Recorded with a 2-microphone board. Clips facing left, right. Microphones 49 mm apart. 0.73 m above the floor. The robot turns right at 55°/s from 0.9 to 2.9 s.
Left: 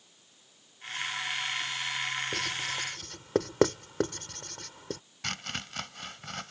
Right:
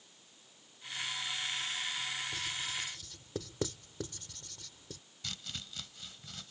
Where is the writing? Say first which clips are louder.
Left 6 dB; 70° left (ahead or behind); by 5.0 s 60° left (ahead or behind).